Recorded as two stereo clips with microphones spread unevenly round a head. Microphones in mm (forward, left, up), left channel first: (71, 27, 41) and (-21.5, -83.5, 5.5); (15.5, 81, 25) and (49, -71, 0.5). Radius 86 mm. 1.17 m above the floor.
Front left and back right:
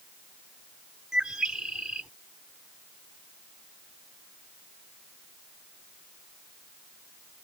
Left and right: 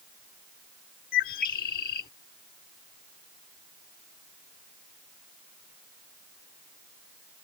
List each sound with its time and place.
1.1 s a bird: 140° left